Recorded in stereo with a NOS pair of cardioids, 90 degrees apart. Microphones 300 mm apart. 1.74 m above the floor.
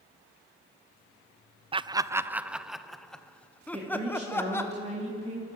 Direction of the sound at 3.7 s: 20° right.